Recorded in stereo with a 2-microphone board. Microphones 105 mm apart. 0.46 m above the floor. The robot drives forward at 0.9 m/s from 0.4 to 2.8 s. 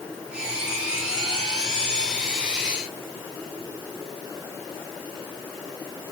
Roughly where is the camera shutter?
I don't hear a camera shutter.